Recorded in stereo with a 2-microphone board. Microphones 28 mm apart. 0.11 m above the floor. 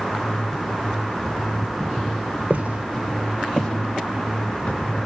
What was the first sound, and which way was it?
Footsteps, 45° right (ahead or behind).